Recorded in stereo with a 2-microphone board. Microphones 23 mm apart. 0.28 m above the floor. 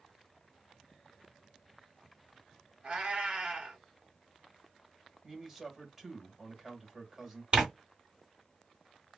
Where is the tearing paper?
55° right (ahead or behind), 1.8 m.